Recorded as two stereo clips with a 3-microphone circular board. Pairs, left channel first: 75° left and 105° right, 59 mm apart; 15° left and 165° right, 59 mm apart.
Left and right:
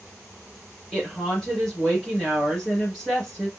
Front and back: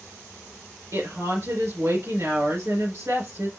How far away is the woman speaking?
About 3 m.